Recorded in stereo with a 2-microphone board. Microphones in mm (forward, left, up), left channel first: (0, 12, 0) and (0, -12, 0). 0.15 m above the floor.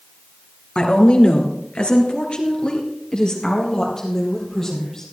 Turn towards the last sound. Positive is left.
turn(degrees=25)  # may be behind; listen again after turning